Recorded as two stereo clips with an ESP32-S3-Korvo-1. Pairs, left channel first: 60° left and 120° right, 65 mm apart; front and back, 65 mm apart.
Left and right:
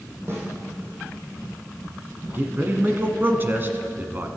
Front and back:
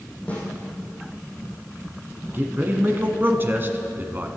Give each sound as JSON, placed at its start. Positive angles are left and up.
{"t": 0.3, "sound": "a snare drum", "azimuth_deg": -70, "distance_m": 5.0}
{"t": 2.3, "sound": "a man speaking", "azimuth_deg": -150, "distance_m": 1.3}